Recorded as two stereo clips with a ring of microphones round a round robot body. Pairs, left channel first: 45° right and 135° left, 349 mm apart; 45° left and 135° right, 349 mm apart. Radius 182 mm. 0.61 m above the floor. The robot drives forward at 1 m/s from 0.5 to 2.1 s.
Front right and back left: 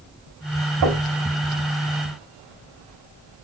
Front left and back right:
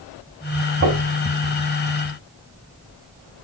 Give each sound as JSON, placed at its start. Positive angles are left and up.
{"t": 0.8, "sound": "knocking", "azimuth_deg": 165, "distance_m": 3.5}